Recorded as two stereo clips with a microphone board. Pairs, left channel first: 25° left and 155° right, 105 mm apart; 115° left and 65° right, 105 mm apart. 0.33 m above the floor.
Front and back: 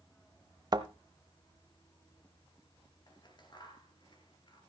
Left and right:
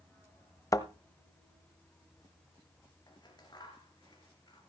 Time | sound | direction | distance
0.7 | a thud | 165° left | 0.8 m
3.1 | scissors | 65° left | 2.5 m